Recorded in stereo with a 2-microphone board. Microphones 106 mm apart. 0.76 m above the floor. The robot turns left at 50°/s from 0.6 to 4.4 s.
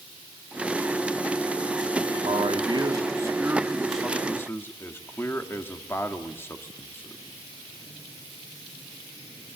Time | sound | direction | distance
2.2 | a man speaking | 100° right | 1.7 m